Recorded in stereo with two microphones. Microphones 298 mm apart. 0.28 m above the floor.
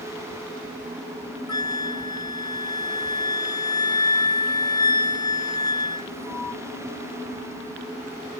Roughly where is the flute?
Centre.